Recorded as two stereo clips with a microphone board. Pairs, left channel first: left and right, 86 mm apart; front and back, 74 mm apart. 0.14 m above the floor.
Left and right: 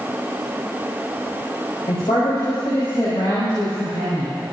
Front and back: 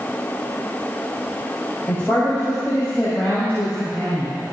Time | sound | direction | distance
1.9 | a man speaking | 70° left | 5.5 m